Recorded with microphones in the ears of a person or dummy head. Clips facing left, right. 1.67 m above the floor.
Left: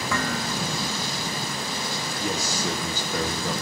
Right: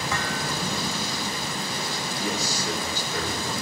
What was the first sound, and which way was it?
Dishes clattering, 55° left (ahead or behind).